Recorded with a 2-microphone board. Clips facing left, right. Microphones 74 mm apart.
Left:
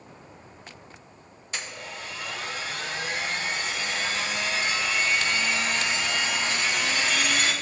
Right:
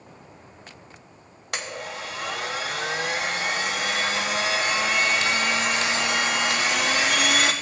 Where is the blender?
70° right (ahead or behind), 1.0 m.